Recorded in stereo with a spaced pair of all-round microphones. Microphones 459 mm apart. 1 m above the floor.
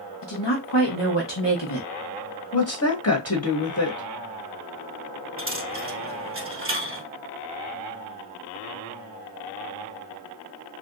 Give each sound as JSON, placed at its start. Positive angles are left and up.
{"t": 0.2, "sound": "a woman speaking", "side_deg": 65, "distance_m": 1.3}
{"t": 2.5, "sound": "a woman speaking", "side_deg": 30, "distance_m": 1.2}
{"t": 5.4, "sound": "a dropped coin", "side_deg": -30, "distance_m": 2.0}